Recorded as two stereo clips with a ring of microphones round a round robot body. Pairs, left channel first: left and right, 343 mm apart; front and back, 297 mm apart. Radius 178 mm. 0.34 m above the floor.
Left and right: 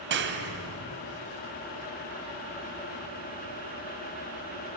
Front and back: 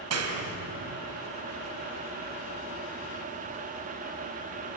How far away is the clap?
About 2.5 m.